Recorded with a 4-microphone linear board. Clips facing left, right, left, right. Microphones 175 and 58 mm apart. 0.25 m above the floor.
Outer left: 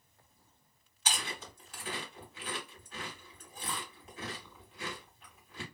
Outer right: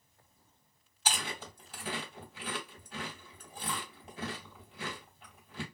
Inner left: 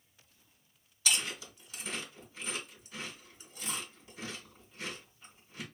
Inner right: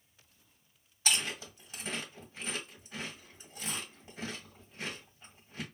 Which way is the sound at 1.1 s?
30° right (ahead or behind).